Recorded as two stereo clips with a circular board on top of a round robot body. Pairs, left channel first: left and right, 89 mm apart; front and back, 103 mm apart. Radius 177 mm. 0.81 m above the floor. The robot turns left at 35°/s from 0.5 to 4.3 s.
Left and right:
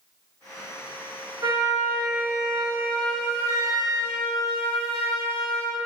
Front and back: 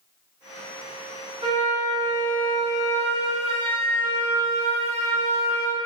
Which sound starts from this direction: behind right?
A flute, at 1.4 s.